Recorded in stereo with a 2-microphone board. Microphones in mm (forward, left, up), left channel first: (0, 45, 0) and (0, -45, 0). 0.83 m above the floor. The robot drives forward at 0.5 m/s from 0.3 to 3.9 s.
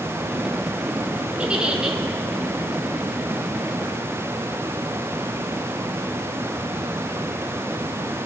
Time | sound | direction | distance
1.4 | a giggle | 10° right (ahead or behind) | 1.1 m